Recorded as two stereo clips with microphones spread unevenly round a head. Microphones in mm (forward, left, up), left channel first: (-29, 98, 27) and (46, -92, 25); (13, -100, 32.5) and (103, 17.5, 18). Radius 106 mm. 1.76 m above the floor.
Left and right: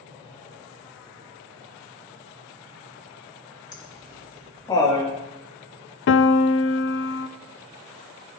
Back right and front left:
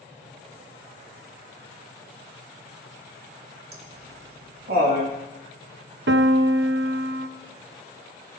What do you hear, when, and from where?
3.7 s laughter: 40° left, 3.5 m
6.1 s a piano: 75° left, 0.5 m